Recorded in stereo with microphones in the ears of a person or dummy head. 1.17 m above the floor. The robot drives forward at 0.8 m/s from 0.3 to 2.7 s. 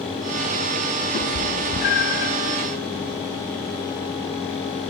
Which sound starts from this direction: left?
A cat meowing, at 1.1 s.